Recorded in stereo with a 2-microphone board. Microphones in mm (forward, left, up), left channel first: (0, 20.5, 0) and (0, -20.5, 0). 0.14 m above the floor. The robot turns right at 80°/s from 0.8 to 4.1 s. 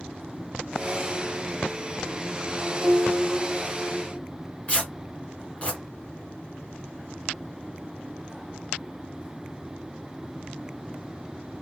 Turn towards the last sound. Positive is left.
turn(degrees=25)  # may be behind; listen again after turning